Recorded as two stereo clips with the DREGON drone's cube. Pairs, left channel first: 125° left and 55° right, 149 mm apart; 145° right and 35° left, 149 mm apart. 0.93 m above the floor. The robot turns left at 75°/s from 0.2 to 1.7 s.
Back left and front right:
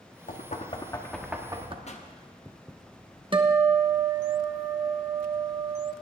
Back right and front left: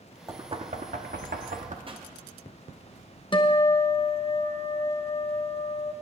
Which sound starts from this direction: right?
A guitar, at 3.3 s.